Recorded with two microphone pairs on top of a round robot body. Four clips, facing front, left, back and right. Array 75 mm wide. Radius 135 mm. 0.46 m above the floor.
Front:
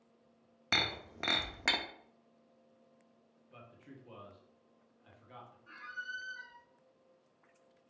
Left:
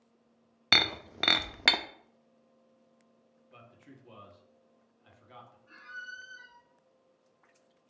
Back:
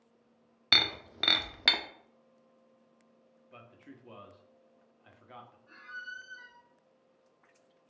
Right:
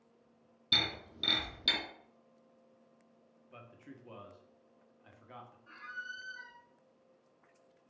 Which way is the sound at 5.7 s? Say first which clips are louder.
Even, front 1 dB; 50° right.